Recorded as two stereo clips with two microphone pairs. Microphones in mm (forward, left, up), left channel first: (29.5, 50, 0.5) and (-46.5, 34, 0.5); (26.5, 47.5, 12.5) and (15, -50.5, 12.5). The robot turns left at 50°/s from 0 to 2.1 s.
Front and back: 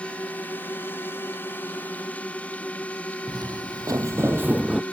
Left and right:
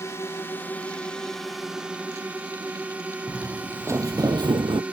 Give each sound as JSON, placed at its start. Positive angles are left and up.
{"t": 0.0, "sound": "a drone", "azimuth_deg": 70}
{"t": 3.3, "sound": "footsteps", "azimuth_deg": -175}